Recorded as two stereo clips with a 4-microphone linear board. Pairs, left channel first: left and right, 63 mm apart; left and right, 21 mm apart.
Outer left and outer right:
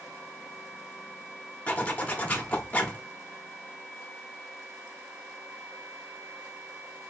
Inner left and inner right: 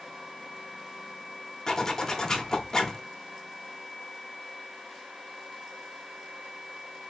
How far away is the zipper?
About 0.9 m.